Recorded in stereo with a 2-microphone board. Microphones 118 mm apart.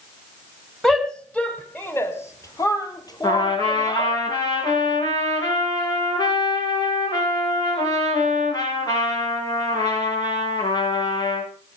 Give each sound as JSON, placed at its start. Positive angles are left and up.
{"t": 0.8, "sound": "a shout", "side_deg": 0, "distance_m": 2.0}
{"t": 3.2, "sound": "a trumpet", "side_deg": 35, "distance_m": 9.5}